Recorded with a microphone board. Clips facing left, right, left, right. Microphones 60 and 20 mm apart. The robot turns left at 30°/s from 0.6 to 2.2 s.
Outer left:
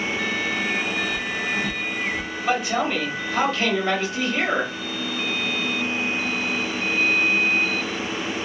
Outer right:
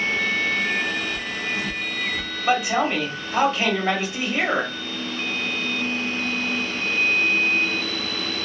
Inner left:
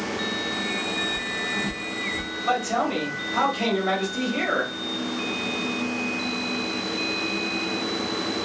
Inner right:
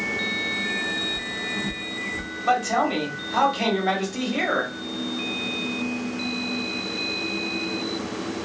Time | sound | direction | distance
1.1 | footsteps | 70° left (ahead or behind) | 0.9 m
2.5 | a man speaking | 20° right (ahead or behind) | 1.1 m